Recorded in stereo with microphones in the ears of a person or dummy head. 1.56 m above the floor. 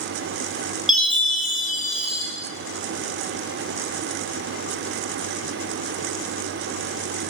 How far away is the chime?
About 0.7 m.